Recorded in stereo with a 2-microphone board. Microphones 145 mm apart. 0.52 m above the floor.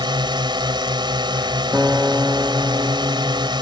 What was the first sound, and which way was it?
A drone, 30° right (ahead or behind).